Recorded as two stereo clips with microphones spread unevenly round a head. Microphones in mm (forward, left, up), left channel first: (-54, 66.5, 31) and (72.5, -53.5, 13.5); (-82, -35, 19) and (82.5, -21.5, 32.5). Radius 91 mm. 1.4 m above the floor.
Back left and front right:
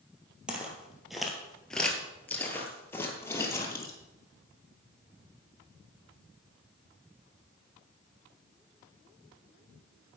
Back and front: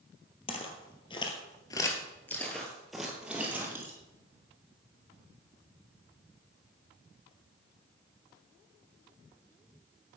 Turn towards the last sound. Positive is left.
turn(degrees=75)